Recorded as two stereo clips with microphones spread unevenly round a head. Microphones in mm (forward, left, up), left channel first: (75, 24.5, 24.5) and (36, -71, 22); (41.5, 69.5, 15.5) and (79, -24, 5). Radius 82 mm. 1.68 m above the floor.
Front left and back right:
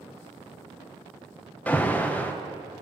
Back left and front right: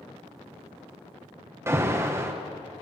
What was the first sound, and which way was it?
An alarm, 5° right.